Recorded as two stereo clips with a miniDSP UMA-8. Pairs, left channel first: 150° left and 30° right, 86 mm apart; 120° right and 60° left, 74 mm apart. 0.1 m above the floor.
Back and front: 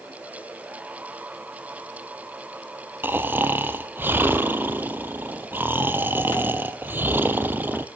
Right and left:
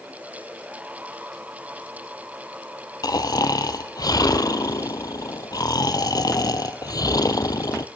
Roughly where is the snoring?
Right.